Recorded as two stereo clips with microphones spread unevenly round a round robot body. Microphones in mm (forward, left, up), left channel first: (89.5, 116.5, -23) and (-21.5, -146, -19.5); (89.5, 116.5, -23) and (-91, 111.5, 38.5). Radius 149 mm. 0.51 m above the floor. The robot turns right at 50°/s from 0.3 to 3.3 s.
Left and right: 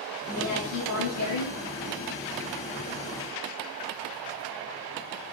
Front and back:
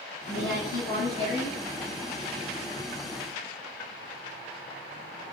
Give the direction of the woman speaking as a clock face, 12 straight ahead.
5 o'clock.